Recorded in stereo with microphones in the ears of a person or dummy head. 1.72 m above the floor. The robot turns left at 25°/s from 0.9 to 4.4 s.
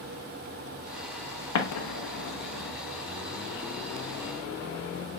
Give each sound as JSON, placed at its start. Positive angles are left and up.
{"t": 1.6, "sound": "an explosion", "side_deg": 85, "distance_m": 0.8}